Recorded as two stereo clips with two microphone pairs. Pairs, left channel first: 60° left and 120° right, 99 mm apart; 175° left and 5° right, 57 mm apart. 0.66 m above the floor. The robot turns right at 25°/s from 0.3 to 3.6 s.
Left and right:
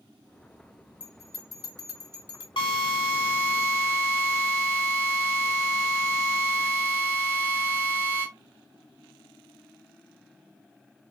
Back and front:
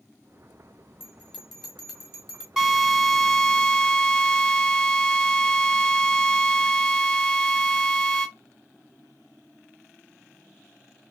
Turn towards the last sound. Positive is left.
turn(degrees=110)